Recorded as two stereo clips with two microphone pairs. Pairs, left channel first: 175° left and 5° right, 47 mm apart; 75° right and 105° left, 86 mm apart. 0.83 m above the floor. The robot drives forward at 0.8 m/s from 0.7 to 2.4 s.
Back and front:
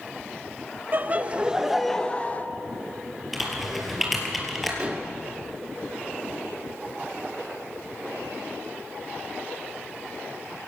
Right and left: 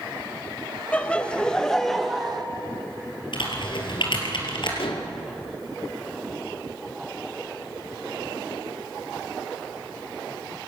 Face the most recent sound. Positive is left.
turn(degrees=-70)